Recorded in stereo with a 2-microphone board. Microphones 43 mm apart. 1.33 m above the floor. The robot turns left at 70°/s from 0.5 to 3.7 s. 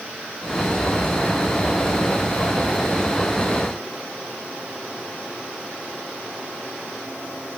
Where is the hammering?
No hammering in this recording.